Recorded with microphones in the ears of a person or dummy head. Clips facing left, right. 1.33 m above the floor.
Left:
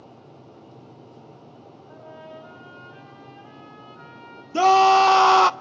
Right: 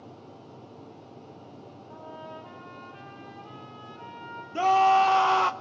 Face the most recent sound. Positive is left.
turn(degrees=70)  # may be behind; listen again after turning